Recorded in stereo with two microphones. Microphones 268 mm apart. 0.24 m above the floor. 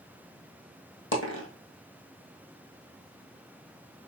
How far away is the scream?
No scream in this recording.